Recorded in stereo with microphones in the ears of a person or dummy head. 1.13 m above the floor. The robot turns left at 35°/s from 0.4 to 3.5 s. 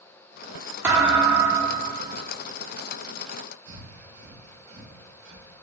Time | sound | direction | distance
0.8 | a thud | 10° right | 1.0 m
3.7 | breathing | 60° right (ahead or behind) | 1.1 m